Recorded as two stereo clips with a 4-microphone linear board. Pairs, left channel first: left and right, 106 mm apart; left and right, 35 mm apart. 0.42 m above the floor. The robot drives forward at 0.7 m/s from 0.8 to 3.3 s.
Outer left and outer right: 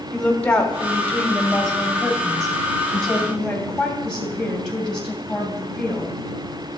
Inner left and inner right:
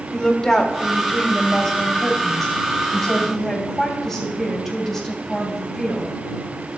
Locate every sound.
0.1 s a woman speaking: 10° left (ahead or behind), 1.3 m; by 6.8 s 5° left (ahead or behind), 2.5 m